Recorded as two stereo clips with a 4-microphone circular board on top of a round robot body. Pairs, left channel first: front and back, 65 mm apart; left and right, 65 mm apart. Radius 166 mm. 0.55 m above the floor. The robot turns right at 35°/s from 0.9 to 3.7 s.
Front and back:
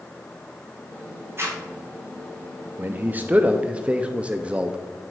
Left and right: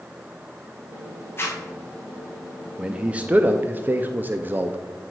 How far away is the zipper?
About 2.5 m.